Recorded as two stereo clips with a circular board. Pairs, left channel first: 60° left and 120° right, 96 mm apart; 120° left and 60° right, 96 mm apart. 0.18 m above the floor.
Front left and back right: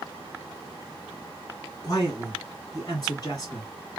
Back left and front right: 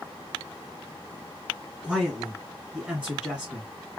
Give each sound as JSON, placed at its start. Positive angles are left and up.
{"t": 1.8, "sound": "a man speaking", "azimuth_deg": 20, "distance_m": 2.5}